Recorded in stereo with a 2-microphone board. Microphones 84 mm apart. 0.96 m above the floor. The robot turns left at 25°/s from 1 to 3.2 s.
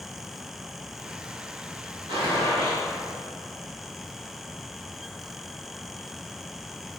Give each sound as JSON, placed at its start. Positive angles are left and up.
{"t": 2.1, "sound": "a gunshot", "side_deg": -80, "distance_m": 1.8}